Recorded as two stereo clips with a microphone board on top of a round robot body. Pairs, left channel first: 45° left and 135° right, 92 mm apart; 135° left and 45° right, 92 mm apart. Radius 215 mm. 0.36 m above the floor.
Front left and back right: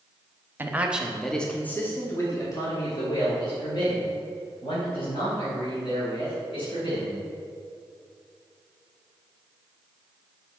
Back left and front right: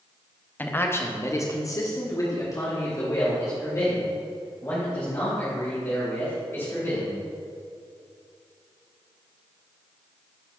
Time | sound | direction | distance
0.6 | a man speaking | 175° right | 1.3 m